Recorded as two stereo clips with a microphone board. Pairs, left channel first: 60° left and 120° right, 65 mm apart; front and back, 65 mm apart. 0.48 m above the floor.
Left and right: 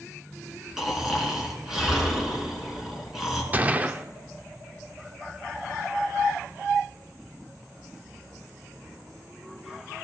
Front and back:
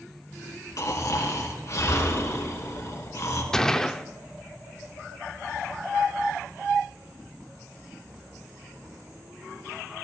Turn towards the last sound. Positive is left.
turn(degrees=-75)